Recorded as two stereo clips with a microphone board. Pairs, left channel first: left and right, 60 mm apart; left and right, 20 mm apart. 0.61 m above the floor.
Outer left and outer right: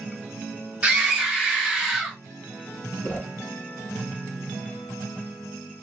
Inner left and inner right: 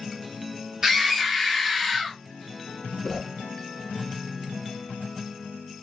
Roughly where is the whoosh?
Left.